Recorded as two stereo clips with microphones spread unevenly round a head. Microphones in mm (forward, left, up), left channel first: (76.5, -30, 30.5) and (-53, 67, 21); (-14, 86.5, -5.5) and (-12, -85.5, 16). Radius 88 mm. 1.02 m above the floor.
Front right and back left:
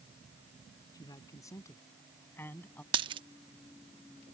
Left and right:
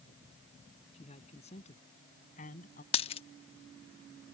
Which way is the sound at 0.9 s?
30° left.